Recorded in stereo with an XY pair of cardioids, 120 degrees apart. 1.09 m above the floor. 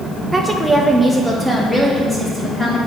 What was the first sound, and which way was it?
A woman speaking, 10° right.